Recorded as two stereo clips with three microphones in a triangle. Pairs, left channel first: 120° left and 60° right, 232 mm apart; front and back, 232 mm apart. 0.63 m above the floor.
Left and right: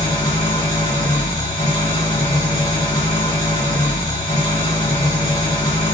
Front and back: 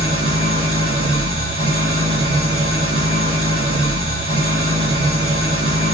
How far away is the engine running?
About 1.7 m.